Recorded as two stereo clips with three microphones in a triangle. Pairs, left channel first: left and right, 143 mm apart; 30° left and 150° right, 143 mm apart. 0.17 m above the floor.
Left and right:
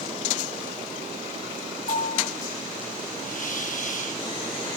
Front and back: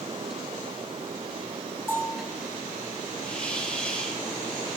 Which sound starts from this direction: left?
A bell, at 1.9 s.